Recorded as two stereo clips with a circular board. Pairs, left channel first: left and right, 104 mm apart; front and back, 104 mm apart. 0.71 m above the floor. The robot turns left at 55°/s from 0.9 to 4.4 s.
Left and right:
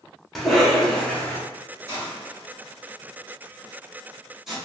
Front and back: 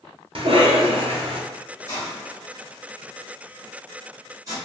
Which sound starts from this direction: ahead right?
A hiss, at 1.9 s.